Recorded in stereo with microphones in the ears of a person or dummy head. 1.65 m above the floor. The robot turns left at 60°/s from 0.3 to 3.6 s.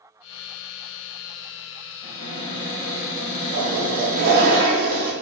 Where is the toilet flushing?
60° right (ahead or behind), 0.5 m; by 5.1 s 55° right (ahead or behind), 0.5 m.